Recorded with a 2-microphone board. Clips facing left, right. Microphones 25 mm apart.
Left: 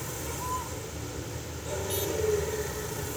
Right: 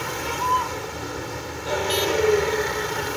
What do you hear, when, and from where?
0.0 s a vehicle: 55° right (ahead or behind)